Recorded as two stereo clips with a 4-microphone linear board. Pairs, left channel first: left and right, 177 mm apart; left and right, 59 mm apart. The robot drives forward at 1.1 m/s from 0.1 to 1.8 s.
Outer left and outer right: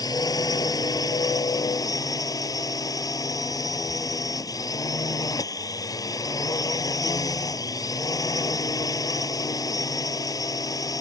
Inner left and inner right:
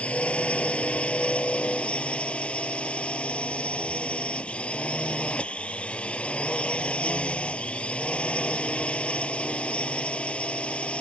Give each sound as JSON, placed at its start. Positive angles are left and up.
{"t": 0.0, "sound": "a drone", "side_deg": 20}